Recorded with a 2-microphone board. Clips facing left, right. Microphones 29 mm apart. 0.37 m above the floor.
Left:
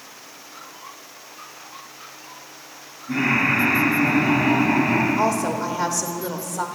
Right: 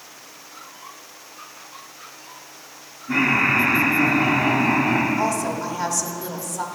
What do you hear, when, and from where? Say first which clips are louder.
3.1 s laughter: right 1 dB; 25° right (ahead or behind), 3.5 m; by 5.1 s 20° right (ahead or behind), 1.6 m
5.2 s a woman speaking: left 2 dB; 20° left (ahead or behind), 0.8 m